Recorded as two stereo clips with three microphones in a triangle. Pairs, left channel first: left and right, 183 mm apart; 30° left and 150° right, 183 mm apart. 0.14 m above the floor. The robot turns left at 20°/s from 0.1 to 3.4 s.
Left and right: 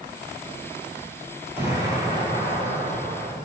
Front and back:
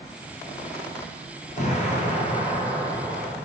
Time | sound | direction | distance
1.6 | an explosion | 10° right | 1.2 m